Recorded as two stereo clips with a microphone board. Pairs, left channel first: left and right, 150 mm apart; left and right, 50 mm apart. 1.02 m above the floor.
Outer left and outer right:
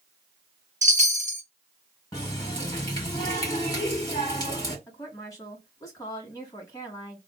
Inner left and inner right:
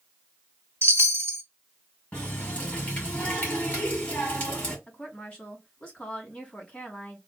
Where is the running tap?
25° left (ahead or behind), 1.9 m.